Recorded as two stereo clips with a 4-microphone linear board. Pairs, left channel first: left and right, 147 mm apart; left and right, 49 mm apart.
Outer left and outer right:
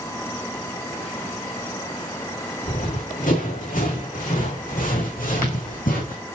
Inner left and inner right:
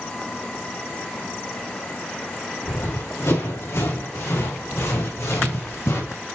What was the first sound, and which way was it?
Running footsteps, 65° left (ahead or behind).